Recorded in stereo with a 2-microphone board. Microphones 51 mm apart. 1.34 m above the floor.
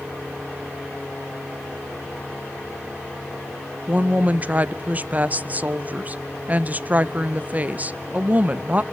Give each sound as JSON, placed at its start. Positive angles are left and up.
{"t": 3.9, "sound": "a woman speaking", "side_deg": -30, "distance_m": 0.6}